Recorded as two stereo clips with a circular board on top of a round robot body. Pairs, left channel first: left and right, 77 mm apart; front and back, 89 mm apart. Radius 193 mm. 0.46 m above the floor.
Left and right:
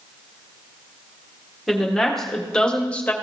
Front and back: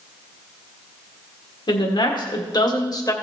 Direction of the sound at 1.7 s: Straight ahead.